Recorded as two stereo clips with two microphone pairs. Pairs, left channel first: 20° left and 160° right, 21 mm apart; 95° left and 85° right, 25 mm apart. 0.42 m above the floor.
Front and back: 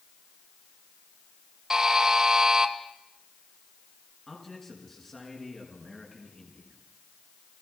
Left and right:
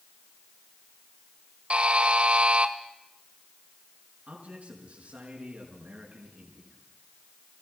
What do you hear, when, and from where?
1.7 s a buzzer: 100° right, 1.8 m
4.3 s a man speaking: 50° right, 5 m